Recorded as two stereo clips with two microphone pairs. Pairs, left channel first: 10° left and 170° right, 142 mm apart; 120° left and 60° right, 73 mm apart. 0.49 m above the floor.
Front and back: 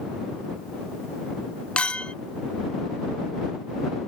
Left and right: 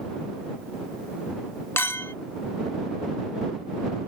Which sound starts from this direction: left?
A clink, at 1.8 s.